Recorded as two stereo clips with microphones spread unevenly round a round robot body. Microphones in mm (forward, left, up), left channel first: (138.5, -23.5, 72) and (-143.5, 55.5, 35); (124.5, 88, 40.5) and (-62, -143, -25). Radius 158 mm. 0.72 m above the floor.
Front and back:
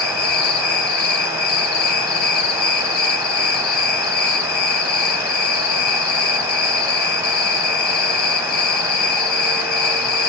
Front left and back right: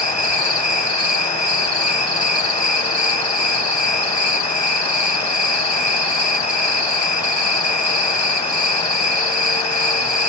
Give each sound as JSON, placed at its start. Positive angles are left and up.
{"t": 0.0, "sound": "an insect", "azimuth_deg": -45, "distance_m": 5.0}